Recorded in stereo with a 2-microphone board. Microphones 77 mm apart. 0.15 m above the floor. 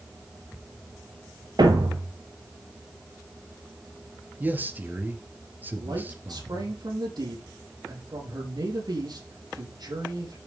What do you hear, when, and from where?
1.6 s a thud: 65° right (ahead or behind), 1.8 m
4.4 s a man speaking: 25° right (ahead or behind), 2.5 m
5.7 s a man speaking: 60° right (ahead or behind), 6 m